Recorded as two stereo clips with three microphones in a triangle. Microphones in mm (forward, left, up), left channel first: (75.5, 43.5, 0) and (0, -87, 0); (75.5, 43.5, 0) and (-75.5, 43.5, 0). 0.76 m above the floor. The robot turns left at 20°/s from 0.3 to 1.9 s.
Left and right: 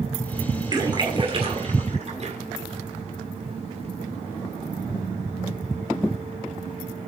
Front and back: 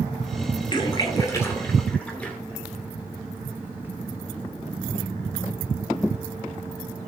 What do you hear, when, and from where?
0.7 s a splash: 55° right, 2 m; by 2.4 s 80° right, 2 m